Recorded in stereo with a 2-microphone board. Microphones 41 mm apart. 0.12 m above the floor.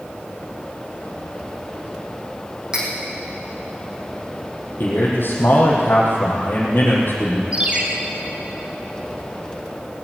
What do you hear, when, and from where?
2.7 s cutlery clinking: 15° right (ahead or behind), 4 m
4.8 s a man speaking: 60° left (ahead or behind), 4 m
7.5 s a ringtone: 30° right (ahead or behind), 2.5 m